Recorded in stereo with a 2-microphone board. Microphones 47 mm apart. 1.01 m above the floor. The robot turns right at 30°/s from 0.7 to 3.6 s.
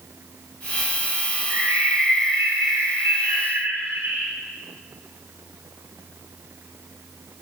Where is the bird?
110° right, 2 m; by 4.3 s 45° right, 2 m.